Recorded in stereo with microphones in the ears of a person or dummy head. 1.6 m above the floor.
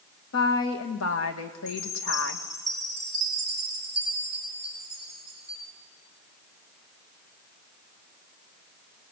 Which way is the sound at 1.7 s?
10° right (ahead or behind).